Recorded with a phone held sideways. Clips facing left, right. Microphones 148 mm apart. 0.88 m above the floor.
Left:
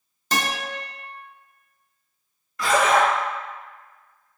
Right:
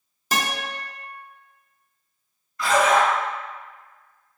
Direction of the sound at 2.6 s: 70° left (ahead or behind).